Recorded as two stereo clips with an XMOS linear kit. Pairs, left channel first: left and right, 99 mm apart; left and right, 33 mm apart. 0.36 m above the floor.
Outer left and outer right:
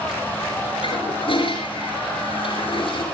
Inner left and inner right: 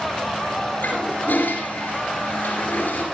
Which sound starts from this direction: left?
A toilet flushing, at 0.8 s.